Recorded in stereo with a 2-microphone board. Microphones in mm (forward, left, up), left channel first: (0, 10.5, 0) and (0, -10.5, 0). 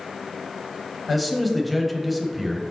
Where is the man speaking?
Centre (ahead or behind), 0.9 m.